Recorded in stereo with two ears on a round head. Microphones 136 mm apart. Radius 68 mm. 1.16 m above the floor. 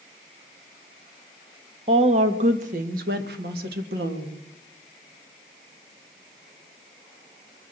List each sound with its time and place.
1.9 s a woman speaking: 40° right (ahead or behind), 1.6 m; by 4.4 s 80° right, 2 m